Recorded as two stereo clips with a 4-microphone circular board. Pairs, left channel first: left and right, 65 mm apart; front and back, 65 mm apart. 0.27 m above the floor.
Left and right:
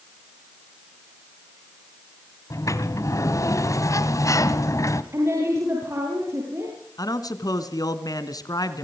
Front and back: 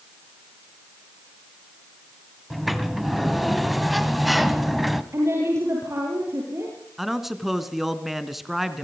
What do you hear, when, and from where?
2.5 s a sliding door: 90° left, 1.6 m
5.1 s a woman speaking: 135° right, 8 m
7.0 s a man speaking: 95° left, 2.5 m